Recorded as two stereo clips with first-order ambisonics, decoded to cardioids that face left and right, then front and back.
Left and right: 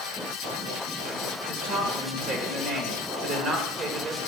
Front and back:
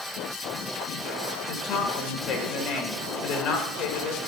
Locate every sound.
1.5 s a woman speaking: 35° right, 1.9 m